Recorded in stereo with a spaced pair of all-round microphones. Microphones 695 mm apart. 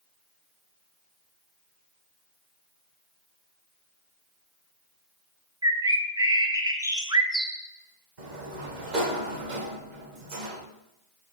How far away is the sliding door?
About 1.3 m.